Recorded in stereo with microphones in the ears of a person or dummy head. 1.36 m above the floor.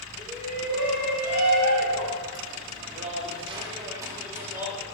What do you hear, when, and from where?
0.2 s a shout: 55° right (ahead or behind), 1.5 m; by 4.8 s 10° right (ahead or behind), 1.9 m